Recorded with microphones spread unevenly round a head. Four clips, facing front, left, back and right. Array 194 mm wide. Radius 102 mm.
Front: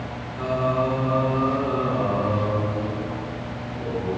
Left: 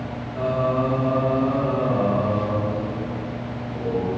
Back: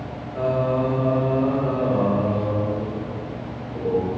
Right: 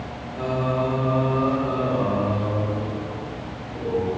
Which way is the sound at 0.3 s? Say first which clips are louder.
Left 2 dB, back 2 dB; 165° left.